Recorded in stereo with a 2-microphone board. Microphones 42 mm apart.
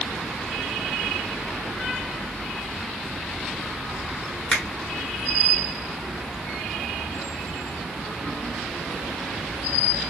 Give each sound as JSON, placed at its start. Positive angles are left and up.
{"t": 4.5, "sound": "a finger snap", "side_deg": 25, "distance_m": 1.4}